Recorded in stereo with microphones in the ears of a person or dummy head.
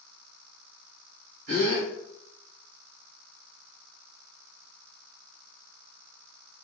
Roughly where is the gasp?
Right.